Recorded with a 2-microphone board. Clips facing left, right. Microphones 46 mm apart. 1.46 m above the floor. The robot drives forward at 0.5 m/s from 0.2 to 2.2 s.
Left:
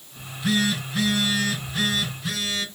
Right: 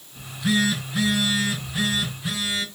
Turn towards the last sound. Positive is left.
turn(degrees=-10)  # may be behind; listen again after turning